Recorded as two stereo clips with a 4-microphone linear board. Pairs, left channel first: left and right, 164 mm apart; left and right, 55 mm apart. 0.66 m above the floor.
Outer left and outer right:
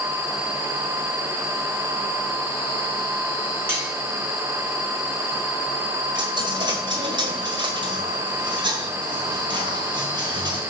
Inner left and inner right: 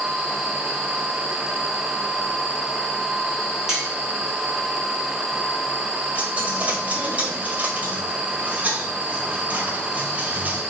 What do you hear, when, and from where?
3.7 s cutlery clinking: 15° right (ahead or behind), 3.5 m
6.2 s a dropped coin: 30° right (ahead or behind), 1.5 m